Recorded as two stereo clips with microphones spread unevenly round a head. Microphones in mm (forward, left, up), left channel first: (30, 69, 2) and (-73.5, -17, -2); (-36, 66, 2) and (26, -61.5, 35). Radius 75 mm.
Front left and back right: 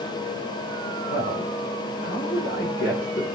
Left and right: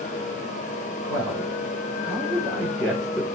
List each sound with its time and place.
1.1 s a man speaking: 50° left, 5.5 m; by 3.2 s 25° left, 4 m